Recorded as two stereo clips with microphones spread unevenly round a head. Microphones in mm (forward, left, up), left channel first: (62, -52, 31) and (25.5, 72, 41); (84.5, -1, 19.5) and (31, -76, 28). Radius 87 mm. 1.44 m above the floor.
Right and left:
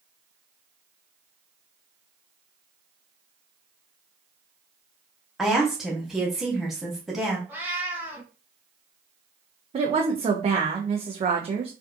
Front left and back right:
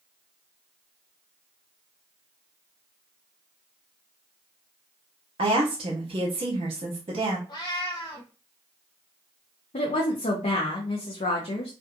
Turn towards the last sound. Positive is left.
turn(degrees=60)